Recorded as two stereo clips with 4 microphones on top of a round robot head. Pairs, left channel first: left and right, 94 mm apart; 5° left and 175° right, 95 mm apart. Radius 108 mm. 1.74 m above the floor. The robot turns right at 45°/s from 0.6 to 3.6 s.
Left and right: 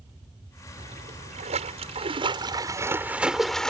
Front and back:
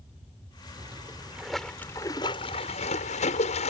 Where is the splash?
120° right; by 3.7 s 5° left.